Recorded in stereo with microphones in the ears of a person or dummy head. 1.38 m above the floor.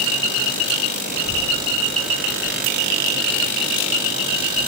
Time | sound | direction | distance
1.1 | a child speaking | 50° right (ahead or behind) | 1.2 m